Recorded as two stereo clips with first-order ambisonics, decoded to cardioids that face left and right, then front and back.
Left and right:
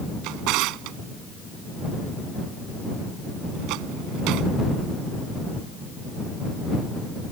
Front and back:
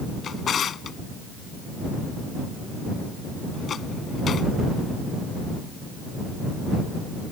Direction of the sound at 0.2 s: 65° right.